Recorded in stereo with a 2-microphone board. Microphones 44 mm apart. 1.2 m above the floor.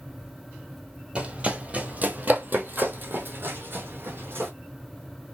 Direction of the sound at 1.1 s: 20° right (ahead or behind).